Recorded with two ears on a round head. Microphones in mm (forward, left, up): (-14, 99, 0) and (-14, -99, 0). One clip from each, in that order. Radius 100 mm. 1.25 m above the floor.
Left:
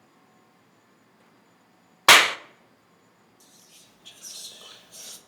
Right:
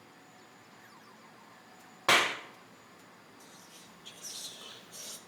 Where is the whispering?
5° left (ahead or behind), 1.4 m.